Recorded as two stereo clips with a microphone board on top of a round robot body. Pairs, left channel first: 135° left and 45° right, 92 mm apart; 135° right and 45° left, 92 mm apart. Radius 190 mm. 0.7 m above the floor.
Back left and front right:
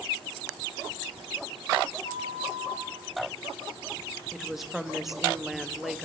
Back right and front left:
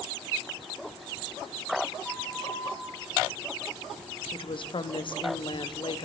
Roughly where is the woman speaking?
Behind right.